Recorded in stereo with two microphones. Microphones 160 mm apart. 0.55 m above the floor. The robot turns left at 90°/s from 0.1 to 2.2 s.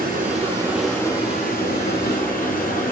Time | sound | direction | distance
0.0 | running water | 110° right | 5 m